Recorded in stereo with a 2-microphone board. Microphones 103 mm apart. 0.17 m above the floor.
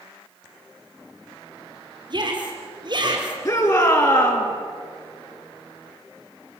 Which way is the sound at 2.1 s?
45° right (ahead or behind).